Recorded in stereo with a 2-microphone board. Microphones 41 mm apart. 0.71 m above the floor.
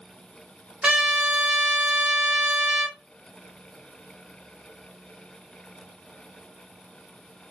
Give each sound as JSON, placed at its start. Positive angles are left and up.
{"t": 0.8, "sound": "a trumpet", "side_deg": -20, "distance_m": 1.2}